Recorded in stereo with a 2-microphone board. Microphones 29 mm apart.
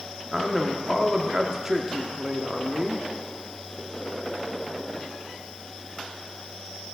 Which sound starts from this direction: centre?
A man speaking, at 0.3 s.